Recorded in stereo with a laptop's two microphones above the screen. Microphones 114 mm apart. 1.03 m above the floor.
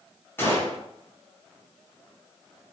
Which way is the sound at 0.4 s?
20° left (ahead or behind).